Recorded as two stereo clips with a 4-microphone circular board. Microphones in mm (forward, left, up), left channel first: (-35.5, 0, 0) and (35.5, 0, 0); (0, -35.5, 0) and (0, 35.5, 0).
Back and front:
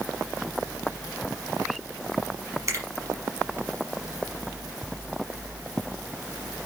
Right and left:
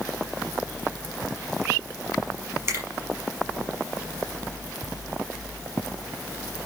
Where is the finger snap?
45° left, 4 m.